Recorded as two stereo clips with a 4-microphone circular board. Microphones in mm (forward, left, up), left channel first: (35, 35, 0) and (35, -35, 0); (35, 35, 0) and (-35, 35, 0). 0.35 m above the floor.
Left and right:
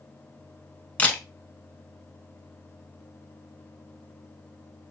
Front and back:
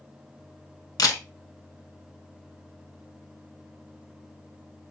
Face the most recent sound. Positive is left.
turn(degrees=20)